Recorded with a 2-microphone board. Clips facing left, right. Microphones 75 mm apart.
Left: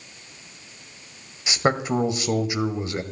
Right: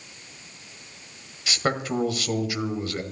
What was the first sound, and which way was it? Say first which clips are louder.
A man speaking: left 4 dB; 20° left (ahead or behind).